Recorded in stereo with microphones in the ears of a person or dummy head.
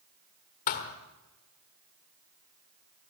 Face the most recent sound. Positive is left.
turn(degrees=40)  # may be behind; listen again after turning